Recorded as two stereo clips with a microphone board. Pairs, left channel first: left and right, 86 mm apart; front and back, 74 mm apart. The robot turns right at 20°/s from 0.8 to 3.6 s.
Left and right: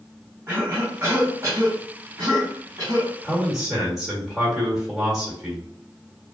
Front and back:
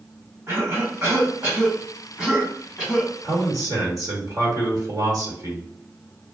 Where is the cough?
145° right, 1.6 m; by 3.1 s 100° right, 1.6 m.